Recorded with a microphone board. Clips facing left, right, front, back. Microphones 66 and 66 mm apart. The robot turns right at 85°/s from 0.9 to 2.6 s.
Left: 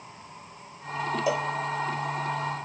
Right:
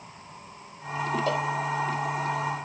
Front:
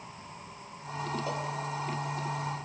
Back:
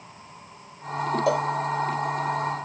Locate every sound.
1.3 s a cowbell: 170° left, 0.6 m; by 1.5 s 175° right, 0.6 m